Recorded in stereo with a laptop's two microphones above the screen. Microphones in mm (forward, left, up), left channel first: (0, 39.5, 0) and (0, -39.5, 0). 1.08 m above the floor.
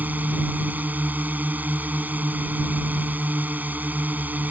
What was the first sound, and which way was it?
A drone, 20° right (ahead or behind).